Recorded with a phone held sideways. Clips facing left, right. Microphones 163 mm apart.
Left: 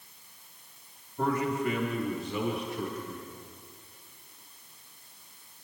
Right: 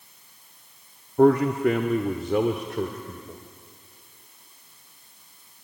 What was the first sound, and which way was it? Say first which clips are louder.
A man speaking: right 11 dB; 60° right (ahead or behind).